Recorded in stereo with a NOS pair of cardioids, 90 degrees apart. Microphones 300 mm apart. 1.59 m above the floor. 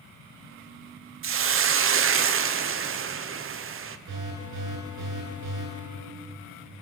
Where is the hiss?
45° right, 0.9 m.